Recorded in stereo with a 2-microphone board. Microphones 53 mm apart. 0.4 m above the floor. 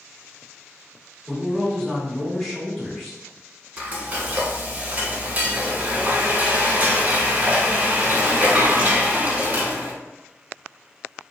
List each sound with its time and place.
1.3 s a man speaking: 5° left (ahead or behind), 1.3 m
3.8 s frying: 30° right (ahead or behind), 0.7 m